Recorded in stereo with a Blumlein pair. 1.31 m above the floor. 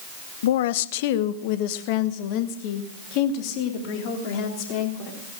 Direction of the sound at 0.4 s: 60° left.